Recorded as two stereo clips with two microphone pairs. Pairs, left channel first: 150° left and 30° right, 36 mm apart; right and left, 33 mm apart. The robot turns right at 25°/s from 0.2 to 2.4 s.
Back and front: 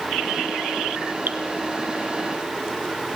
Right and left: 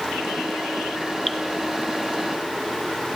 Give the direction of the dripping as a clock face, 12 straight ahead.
12 o'clock.